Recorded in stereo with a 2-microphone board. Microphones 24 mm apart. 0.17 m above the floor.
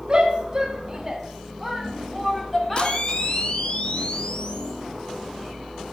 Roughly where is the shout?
Right.